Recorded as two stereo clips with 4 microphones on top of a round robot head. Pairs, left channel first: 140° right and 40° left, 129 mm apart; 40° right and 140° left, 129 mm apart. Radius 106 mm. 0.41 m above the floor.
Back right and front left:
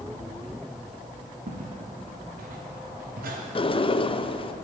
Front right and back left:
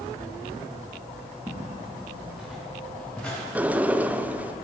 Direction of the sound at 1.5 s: 65° left.